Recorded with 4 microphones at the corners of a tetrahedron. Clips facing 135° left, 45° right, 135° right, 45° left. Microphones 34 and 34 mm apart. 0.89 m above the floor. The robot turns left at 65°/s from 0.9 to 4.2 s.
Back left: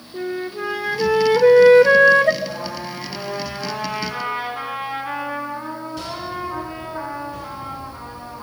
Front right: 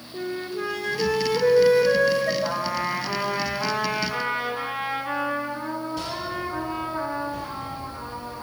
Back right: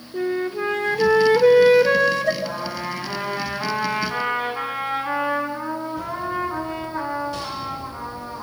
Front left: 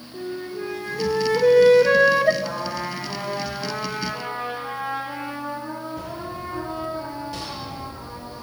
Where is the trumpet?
35° right, 7.5 m; by 8.4 s 150° right, 7.5 m.